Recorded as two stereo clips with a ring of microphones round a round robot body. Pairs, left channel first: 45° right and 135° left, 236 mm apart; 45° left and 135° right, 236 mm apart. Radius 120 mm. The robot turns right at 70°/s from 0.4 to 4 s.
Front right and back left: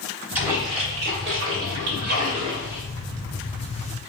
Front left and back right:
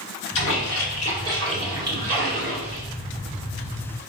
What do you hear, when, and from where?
0.3 s a splash: 55° left, 2 m; by 2.8 s 135° right, 2 m